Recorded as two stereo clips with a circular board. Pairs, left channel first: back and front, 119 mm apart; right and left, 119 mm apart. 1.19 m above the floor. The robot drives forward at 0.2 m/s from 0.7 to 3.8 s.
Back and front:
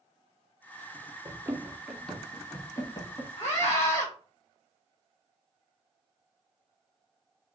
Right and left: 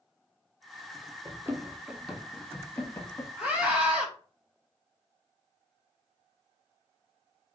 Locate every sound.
1.2 s running footsteps: 40° left, 1.4 m; by 3.3 s 145° right, 1.7 m
3.4 s a scream: 165° left, 2.5 m